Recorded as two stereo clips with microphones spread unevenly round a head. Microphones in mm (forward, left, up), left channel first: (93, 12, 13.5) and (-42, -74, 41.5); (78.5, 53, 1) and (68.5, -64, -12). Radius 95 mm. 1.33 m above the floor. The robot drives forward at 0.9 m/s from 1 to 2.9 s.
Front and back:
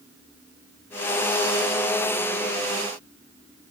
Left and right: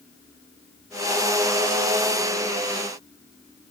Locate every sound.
Only background noise.